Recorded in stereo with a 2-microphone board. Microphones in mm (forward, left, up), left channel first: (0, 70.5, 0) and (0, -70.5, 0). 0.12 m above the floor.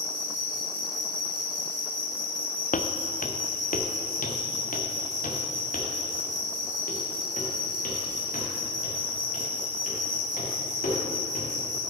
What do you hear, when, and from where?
0.0 s an insect: 35° right (ahead or behind), 3 m
2.7 s footsteps: 75° left (ahead or behind), 0.7 m; by 11.5 s 90° left, 5 m